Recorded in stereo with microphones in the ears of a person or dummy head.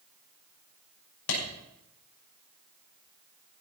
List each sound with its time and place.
1.3 s a clap: 85° left, 6 m